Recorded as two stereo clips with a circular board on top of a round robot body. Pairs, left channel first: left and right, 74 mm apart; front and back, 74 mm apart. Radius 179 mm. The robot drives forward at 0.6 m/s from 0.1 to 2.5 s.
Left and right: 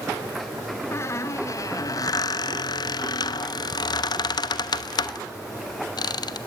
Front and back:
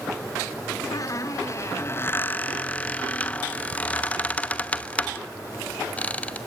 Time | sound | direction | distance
0.9 | a squeak | 40° left | 1.7 m